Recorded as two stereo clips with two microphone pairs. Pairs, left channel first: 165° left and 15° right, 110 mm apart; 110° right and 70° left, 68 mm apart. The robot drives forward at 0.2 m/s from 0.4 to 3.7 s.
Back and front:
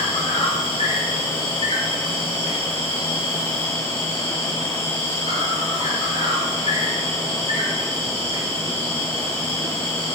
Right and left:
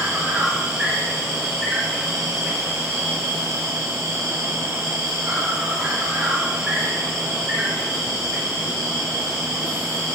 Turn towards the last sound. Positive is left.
turn(degrees=155)